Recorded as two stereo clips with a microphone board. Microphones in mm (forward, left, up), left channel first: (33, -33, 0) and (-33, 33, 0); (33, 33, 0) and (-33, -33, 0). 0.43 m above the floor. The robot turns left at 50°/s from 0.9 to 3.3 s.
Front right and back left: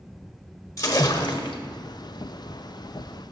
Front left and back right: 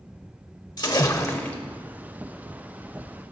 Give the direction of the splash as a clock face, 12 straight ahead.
12 o'clock.